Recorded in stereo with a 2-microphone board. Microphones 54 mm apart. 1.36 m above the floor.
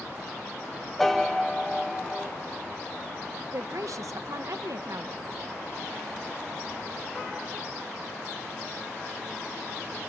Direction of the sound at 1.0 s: 5° left (ahead or behind).